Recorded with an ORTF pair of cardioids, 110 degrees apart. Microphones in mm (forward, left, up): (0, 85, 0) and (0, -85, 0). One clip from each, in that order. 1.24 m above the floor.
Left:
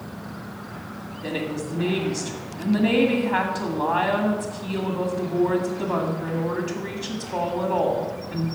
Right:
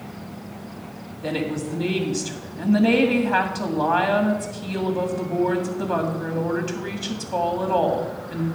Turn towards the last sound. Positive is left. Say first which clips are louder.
# right 2 dB
turn(degrees=-20)